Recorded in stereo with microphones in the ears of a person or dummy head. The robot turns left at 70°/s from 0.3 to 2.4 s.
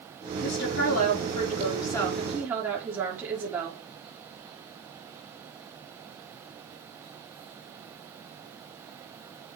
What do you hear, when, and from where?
0.4 s a woman speaking: 120° left, 3.5 m; by 3.8 s 20° right, 3.5 m